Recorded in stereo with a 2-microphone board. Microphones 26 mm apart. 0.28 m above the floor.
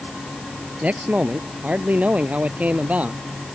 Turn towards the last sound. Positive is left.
turn(degrees=-75)  # may be behind; listen again after turning